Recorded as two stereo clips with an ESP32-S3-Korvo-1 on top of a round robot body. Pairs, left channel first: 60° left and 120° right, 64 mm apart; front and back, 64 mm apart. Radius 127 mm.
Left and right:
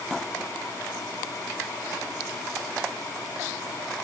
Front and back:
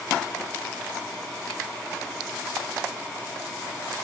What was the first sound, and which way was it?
Only background noise.